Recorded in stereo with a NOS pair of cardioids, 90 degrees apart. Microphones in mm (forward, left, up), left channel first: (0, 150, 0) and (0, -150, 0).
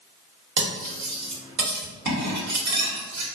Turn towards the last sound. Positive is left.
turn(degrees=-65)